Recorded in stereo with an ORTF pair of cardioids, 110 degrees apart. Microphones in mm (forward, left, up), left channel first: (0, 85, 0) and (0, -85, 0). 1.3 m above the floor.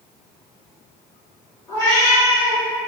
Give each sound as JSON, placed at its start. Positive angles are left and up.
{"t": 1.7, "sound": "a cat meowing", "azimuth_deg": 20, "distance_m": 1.6}